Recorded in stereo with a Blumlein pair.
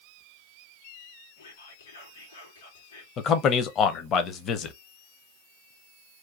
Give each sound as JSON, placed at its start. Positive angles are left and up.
{"t": 1.4, "sound": "whispering", "azimuth_deg": 65, "distance_m": 1.8}
{"t": 3.2, "sound": "a man speaking", "azimuth_deg": 30, "distance_m": 0.6}